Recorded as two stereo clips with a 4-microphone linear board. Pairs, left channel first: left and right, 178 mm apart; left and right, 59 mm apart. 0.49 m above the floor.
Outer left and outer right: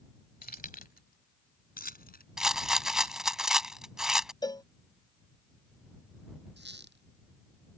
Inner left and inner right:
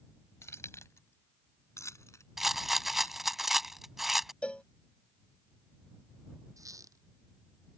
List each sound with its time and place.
0.4 s keys jangling: 55° left (ahead or behind); by 3.2 s 60° left (ahead or behind)
2.4 s a rattle: 5° right (ahead or behind)
4.4 s a cowbell: 25° left (ahead or behind)
6.6 s a squeak: 80° right